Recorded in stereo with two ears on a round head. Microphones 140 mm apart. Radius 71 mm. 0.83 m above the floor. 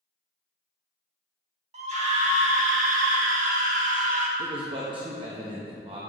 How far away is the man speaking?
About 0.8 m.